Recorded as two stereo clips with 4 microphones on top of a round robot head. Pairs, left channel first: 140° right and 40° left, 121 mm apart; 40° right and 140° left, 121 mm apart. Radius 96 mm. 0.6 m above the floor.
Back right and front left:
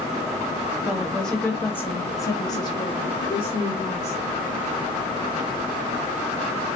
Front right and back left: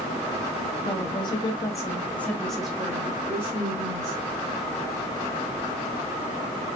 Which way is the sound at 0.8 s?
50° right.